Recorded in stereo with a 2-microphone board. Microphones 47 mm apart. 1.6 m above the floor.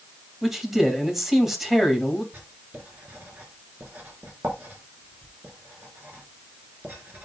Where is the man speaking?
10° right (ahead or behind), 2.5 m.